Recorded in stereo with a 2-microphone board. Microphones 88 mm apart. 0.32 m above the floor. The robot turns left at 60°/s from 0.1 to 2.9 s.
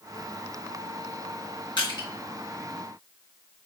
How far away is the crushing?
About 3 m.